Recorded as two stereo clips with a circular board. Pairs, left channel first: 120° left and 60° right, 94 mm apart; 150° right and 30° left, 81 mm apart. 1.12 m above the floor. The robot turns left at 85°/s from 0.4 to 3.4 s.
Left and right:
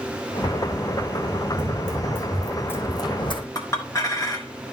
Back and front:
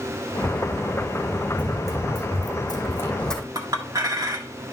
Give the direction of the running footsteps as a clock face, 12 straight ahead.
2 o'clock.